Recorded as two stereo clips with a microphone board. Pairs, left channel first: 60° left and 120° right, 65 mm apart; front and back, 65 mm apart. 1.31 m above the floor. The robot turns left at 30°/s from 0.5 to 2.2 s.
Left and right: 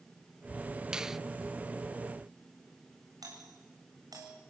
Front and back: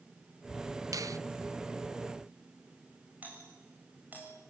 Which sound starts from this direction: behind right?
A doorbell, at 3.2 s.